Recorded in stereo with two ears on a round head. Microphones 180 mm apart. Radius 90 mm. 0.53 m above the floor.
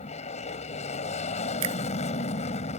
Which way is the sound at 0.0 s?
35° left (ahead or behind).